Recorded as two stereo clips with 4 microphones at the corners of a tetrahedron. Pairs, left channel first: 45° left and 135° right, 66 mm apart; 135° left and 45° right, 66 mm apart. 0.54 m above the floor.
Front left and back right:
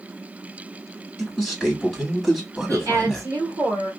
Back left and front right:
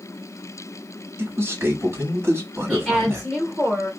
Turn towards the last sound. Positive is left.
turn(degrees=-145)